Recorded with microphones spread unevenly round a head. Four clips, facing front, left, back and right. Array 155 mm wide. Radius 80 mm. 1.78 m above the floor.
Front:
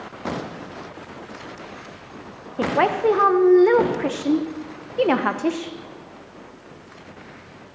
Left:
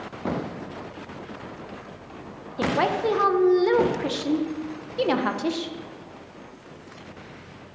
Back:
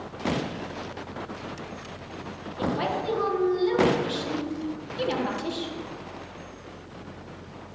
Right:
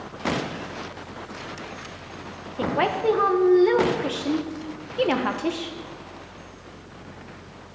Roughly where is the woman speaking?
Ahead.